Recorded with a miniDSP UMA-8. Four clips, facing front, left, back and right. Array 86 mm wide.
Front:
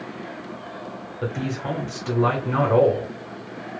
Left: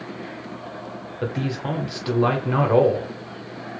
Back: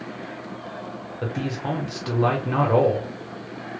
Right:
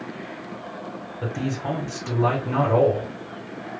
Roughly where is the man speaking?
Left.